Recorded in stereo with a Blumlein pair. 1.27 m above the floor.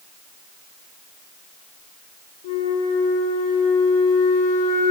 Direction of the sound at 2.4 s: 60° left.